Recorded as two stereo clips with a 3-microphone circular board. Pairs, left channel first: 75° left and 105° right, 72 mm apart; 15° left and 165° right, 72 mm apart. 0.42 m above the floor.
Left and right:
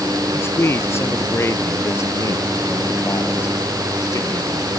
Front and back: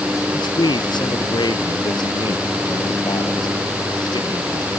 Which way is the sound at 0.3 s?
15° left.